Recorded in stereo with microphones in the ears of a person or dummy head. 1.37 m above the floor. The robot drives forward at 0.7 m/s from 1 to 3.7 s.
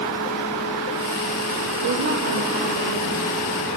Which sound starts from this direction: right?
A woman speaking, at 1.8 s.